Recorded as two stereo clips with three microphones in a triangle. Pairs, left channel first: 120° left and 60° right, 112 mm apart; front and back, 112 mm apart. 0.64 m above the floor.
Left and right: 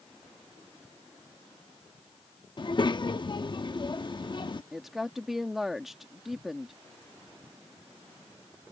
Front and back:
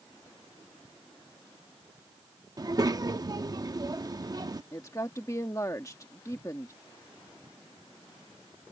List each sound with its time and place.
2.6 s a child speaking: 140° left
4.7 s a woman speaking: 25° left